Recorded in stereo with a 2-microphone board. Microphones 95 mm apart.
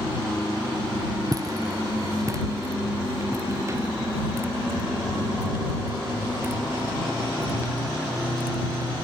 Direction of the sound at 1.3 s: 40° right (ahead or behind).